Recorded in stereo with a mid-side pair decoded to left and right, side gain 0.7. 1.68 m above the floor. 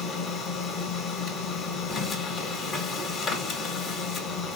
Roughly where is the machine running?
Ahead left.